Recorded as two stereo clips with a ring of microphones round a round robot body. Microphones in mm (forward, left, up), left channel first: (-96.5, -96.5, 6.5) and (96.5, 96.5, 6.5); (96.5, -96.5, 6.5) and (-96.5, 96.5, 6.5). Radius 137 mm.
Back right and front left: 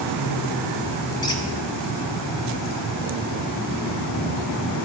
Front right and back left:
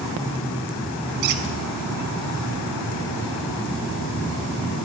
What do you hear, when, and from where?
1.2 s a squeak: 150° left, 0.8 m